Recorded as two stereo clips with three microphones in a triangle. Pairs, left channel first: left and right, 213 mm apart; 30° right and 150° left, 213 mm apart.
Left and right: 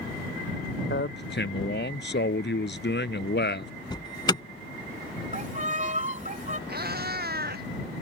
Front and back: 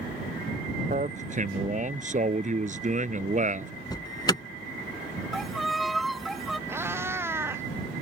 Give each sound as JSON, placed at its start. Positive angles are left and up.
{"t": 0.9, "sound": "a man speaking", "azimuth_deg": 105}
{"t": 3.9, "sound": "an alarm", "azimuth_deg": 30}
{"t": 5.3, "sound": "a violin", "azimuth_deg": -120}
{"t": 6.7, "sound": "a cat meowing", "azimuth_deg": -130}